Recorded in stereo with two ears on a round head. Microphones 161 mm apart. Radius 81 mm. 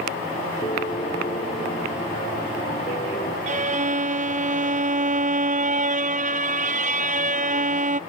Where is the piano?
30° left (ahead or behind).